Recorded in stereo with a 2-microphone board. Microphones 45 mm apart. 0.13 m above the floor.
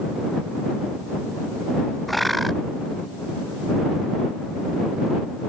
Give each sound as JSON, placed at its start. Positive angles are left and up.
{"t": 2.1, "sound": "a bird", "side_deg": 0}